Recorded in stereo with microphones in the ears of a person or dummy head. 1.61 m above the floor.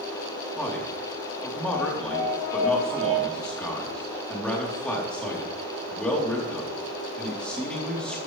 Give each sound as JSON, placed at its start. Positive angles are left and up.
{"t": 0.6, "sound": "a man speaking", "side_deg": 5, "distance_m": 3.5}